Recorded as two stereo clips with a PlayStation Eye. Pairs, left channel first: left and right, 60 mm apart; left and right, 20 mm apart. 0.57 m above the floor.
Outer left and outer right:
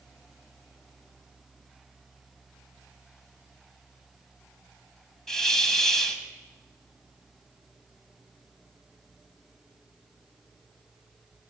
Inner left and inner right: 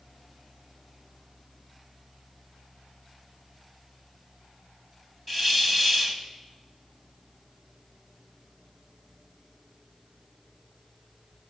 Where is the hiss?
10° left (ahead or behind), 1.3 m.